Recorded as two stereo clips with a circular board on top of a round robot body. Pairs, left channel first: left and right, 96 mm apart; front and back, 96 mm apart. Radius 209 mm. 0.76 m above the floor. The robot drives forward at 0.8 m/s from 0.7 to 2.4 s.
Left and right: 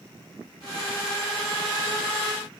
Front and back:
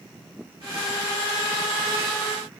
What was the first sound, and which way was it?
Only background noise.